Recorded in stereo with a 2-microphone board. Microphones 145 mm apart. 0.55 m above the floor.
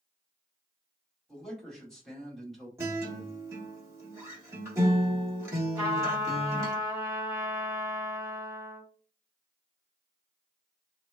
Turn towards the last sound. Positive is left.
turn(degrees=-15)  # may be behind; listen again after turning